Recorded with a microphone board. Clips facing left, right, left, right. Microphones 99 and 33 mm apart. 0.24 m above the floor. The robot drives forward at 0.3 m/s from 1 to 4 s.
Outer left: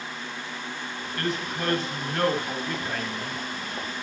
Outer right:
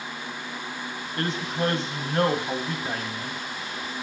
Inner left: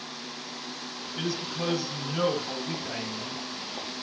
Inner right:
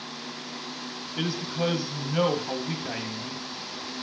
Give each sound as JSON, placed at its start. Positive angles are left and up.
{"t": 1.2, "sound": "a man speaking", "side_deg": -25, "distance_m": 1.5}